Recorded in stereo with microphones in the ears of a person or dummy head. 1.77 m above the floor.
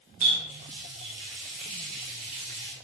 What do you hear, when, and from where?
0.2 s a running tap: 40° right (ahead or behind), 1.4 m